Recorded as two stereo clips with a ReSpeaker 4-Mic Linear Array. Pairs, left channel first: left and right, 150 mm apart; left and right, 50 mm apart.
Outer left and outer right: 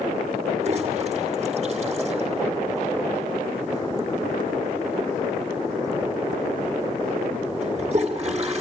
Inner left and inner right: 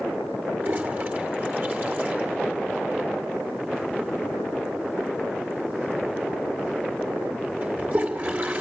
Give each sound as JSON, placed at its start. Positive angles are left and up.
{"t": 0.6, "sound": "a toilet flushing", "side_deg": -45, "distance_m": 2.0}